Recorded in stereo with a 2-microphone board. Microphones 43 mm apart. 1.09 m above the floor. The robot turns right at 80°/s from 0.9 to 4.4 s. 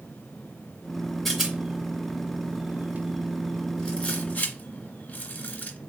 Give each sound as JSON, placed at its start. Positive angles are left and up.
{"t": 1.2, "sound": "a rattle", "side_deg": 0, "distance_m": 1.3}